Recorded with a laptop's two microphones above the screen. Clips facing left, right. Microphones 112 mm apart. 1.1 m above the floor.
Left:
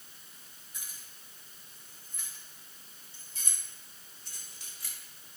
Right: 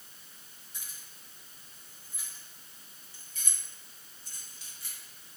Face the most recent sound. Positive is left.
turn(degrees=80)